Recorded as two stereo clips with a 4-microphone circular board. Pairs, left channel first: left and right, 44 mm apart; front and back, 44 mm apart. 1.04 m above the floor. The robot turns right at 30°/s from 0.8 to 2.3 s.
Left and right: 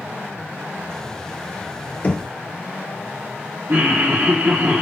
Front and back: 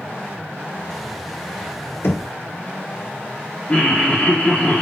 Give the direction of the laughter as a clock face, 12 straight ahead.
2 o'clock.